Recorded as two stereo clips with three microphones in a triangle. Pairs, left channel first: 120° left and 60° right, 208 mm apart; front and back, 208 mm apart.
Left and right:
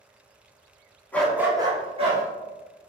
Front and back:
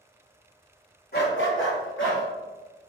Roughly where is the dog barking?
Ahead left.